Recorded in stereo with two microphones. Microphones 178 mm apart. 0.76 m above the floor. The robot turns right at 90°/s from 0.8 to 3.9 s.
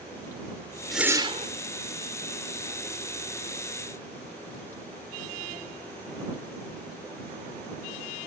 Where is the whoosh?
Straight behind; by 1.5 s 125° right.